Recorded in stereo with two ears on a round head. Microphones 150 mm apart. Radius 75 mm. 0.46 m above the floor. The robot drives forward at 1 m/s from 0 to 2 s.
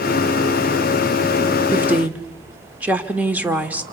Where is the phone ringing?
I don't hear a phone ringing.